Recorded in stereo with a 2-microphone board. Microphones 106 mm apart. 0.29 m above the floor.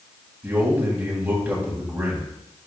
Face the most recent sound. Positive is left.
turn(degrees=-15)  # may be behind; listen again after turning